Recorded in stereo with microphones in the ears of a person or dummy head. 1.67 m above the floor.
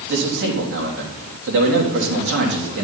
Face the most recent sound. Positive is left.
turn(degrees=-60)  # may be behind; listen again after turning